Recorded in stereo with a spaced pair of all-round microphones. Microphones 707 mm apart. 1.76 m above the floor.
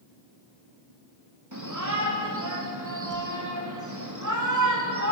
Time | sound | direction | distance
1.5 | a shout | 25° right (ahead or behind) | 4 m